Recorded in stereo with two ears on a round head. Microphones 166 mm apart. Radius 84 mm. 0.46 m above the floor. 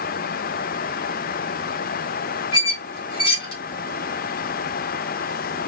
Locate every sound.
2.5 s a squeak: 60° left (ahead or behind), 2.5 m